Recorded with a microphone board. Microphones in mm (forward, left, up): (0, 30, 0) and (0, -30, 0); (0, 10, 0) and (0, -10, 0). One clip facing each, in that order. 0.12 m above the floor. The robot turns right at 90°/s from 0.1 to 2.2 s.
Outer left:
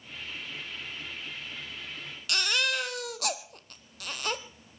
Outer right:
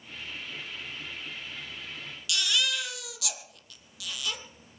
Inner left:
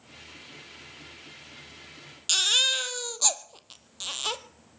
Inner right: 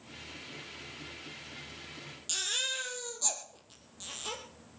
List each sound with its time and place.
2.3 s a baby crying: 50° left (ahead or behind), 1.1 m